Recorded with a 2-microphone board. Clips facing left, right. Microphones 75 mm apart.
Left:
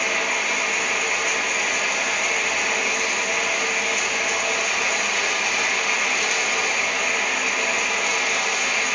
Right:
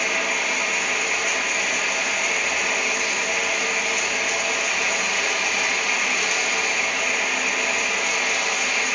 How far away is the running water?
About 1.2 m.